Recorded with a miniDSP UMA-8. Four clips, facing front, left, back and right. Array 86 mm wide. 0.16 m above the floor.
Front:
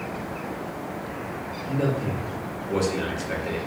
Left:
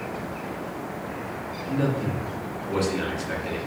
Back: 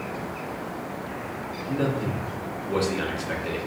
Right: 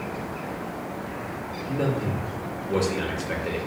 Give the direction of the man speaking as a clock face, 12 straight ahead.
7 o'clock.